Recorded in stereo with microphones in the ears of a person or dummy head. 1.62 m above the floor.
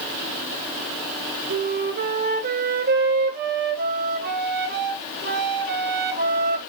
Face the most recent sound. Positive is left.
turn(degrees=-45)  # may be behind; listen again after turning